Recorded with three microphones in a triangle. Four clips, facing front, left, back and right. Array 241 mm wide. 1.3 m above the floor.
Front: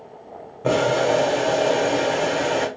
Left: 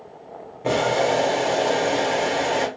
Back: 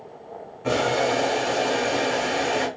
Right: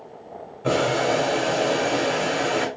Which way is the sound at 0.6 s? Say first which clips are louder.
Left 1 dB, front 3 dB; 15° left.